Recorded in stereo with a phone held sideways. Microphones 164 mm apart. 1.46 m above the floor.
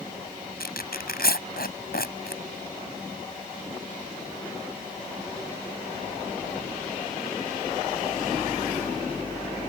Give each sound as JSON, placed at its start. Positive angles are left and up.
{"t": 0.6, "sound": "tearing paper", "side_deg": 75}